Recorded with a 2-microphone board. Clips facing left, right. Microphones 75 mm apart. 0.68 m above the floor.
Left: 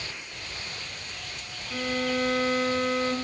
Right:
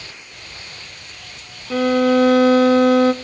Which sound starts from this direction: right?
A violin, at 1.7 s.